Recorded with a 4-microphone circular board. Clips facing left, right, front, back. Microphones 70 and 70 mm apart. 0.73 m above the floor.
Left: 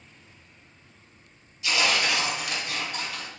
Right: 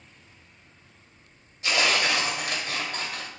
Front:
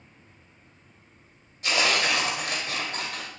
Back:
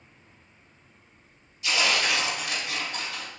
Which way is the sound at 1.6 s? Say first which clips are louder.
Right 1 dB, front 1 dB; 45° right.